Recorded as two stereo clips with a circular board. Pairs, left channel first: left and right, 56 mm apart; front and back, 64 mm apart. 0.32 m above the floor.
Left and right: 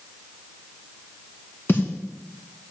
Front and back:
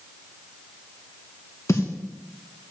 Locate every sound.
1.7 s a snare drum: 40° left, 2 m